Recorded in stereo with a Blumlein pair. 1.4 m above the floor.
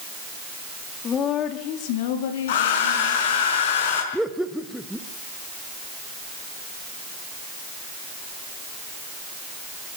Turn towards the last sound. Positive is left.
turn(degrees=0)